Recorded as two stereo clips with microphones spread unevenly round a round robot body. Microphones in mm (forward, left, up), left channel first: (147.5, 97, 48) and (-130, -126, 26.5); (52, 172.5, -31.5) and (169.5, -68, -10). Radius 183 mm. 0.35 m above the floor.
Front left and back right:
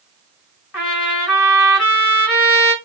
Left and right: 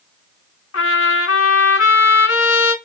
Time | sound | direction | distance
0.7 | a trumpet | 90° left | 2.5 m